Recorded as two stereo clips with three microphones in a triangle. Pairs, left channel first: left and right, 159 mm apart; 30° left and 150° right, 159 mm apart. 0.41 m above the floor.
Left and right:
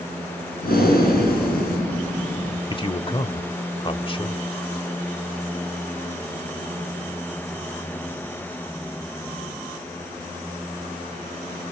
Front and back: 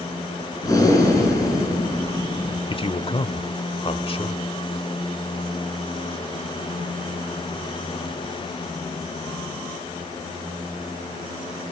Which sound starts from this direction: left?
Breathing, at 0.6 s.